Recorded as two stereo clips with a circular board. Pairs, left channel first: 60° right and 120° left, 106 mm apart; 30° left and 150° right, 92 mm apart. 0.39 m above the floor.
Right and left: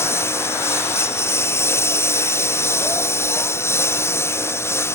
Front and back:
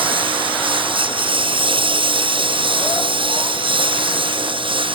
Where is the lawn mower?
125° right.